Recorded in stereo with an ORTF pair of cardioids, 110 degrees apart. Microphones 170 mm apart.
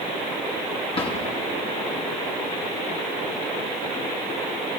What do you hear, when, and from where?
0.9 s a drawer: 35° left, 6.5 m